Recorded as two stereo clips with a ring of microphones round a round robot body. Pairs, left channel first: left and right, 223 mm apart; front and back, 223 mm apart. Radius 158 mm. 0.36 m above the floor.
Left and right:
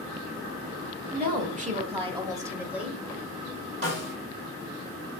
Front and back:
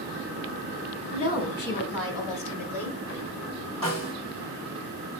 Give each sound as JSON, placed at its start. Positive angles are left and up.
{"t": 1.1, "sound": "a woman speaking", "azimuth_deg": -55, "distance_m": 1.4}
{"t": 3.8, "sound": "a snare drum", "azimuth_deg": -50, "distance_m": 3.0}